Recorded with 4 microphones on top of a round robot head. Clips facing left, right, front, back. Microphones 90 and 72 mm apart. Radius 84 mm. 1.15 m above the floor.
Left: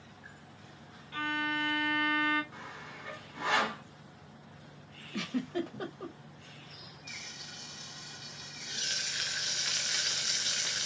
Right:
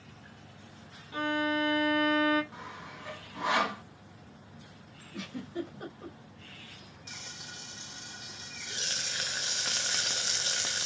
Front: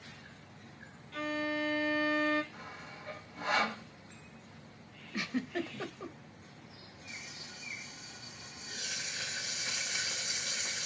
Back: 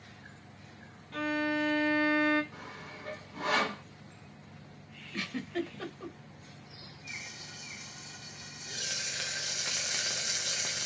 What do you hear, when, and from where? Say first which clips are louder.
1.1 s a violin: right 4 dB, back 4 dB; 155° right, 0.9 m
2.5 s sawing: right 2 dB, back 2 dB; 165° right, 1.1 m
5.1 s a giggle: left 4 dB, even; 75° left, 0.8 m
7.1 s frying: right 3 dB, back 3 dB; 140° right, 0.5 m